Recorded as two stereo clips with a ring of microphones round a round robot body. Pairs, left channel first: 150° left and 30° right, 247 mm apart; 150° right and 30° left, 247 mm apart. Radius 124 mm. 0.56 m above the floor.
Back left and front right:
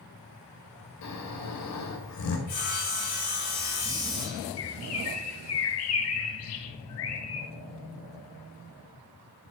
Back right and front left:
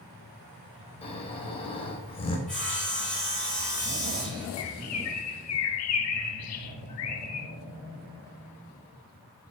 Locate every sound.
1.0 s snoring: 145° left, 3 m
2.5 s sawing: 125° left, 7 m
4.6 s a bird: 175° right, 1.4 m